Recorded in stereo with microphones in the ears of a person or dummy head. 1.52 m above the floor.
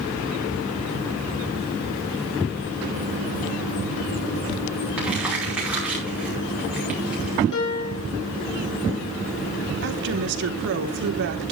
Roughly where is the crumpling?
Centre.